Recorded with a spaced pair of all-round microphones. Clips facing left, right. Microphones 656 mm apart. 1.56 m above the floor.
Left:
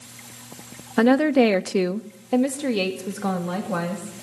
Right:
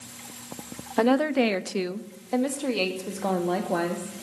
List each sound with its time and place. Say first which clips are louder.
1.0 s a woman speaking: left 5 dB; 45° left (ahead or behind), 0.5 m; by 4.1 s 35° left (ahead or behind), 1.7 m